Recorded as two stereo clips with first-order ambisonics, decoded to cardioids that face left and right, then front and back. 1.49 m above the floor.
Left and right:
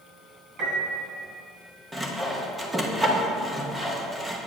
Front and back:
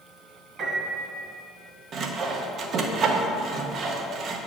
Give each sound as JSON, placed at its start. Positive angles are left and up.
{"t": 0.6, "sound": "a piano", "azimuth_deg": -125, "distance_m": 2.5}
{"t": 1.9, "sound": "sawing", "azimuth_deg": -165, "distance_m": 0.8}